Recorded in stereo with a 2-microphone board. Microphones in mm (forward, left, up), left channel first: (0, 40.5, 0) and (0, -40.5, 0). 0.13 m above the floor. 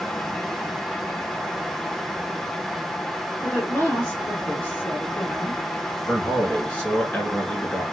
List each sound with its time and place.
3.4 s a woman speaking: 25° left (ahead or behind), 1.5 m
6.1 s a man speaking: 15° left (ahead or behind), 1.7 m